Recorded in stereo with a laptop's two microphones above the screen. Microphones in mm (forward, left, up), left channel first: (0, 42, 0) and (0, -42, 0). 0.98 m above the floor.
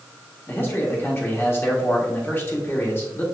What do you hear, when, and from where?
0.5 s a man speaking: 25° left (ahead or behind), 1.5 m